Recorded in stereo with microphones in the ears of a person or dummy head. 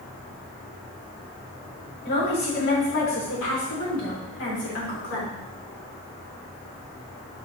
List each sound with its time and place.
2.0 s a woman speaking: 65° left (ahead or behind), 4 m; by 5.3 s 70° left (ahead or behind), 3.5 m